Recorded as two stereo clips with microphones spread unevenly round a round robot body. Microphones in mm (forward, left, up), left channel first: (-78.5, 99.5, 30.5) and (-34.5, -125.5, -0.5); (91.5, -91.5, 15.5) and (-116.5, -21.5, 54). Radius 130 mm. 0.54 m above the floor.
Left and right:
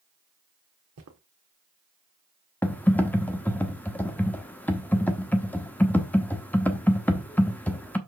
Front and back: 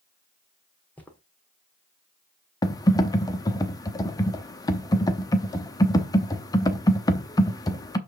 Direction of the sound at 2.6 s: 10° left.